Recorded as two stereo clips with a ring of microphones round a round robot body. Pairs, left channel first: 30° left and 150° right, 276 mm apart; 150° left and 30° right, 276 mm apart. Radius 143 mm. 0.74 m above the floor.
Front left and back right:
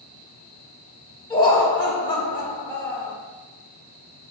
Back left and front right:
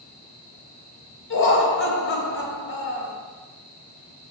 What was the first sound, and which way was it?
Laughter, 105° left.